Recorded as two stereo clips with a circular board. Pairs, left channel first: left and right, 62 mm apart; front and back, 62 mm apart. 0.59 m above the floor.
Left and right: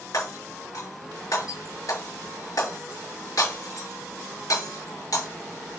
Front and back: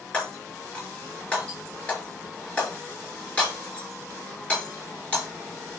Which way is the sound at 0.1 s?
70° left.